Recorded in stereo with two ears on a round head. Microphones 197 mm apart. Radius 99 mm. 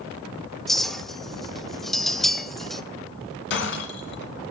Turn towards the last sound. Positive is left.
turn(degrees=50)  # may be behind; listen again after turning